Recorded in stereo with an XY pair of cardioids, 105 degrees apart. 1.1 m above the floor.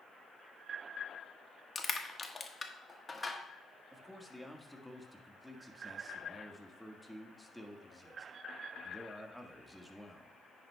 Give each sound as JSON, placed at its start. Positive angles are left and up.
{"t": 1.8, "sound": "crushing", "azimuth_deg": 25, "distance_m": 1.3}
{"t": 3.9, "sound": "a man speaking", "azimuth_deg": -5, "distance_m": 1.6}